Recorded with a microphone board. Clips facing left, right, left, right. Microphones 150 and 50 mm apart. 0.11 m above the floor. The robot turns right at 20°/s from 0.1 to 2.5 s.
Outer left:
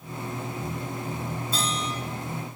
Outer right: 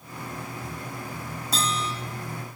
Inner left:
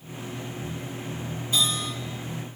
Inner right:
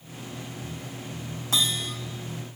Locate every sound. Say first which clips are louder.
1.5 s a bell: outer right 4 dB, even; 80° right, 2 m; by 1.9 s 75° right (ahead or behind), 2 m